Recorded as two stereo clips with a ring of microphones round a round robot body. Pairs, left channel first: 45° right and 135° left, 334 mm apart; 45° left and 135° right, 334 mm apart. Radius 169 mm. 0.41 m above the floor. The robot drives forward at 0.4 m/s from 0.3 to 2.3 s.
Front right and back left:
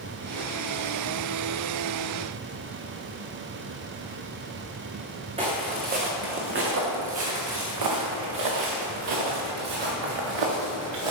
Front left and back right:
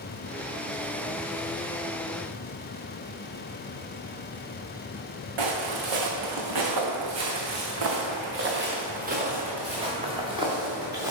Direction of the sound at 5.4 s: 150° right.